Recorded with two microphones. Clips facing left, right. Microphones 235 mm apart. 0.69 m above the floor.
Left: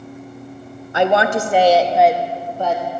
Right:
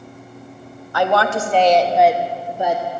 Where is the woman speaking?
25° left (ahead or behind), 0.9 m; by 2.8 s 15° right (ahead or behind), 1.0 m.